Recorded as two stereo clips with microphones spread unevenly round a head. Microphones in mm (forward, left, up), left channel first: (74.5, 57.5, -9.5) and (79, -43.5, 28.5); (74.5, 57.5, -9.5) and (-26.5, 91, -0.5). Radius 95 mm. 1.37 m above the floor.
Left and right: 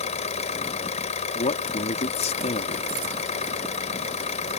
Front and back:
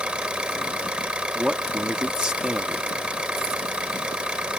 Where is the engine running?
80° left.